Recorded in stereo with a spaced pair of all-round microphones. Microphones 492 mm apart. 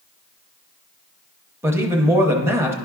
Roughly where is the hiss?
I don't hear a hiss.